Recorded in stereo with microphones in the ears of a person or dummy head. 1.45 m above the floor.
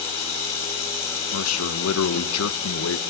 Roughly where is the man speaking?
Left.